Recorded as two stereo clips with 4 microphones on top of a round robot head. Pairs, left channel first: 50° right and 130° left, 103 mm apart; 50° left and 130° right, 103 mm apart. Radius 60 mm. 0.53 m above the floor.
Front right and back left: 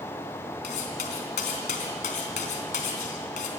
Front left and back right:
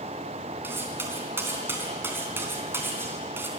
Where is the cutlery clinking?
60° right, 3.5 m.